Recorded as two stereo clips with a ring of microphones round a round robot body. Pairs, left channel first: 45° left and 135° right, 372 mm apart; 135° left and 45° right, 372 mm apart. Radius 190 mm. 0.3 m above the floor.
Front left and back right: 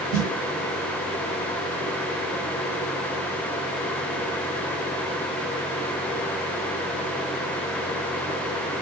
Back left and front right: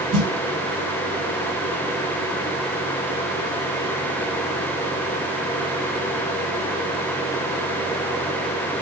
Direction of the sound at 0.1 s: 55° right.